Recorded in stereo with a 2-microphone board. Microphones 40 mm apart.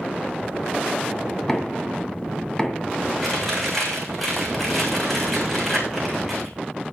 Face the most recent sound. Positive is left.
turn(degrees=0)  # may be behind; listen again after turning